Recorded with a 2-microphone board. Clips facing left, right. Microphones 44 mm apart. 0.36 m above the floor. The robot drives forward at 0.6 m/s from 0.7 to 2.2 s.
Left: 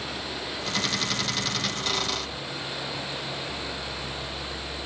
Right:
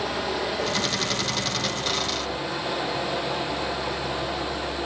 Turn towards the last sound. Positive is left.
turn(degrees=-85)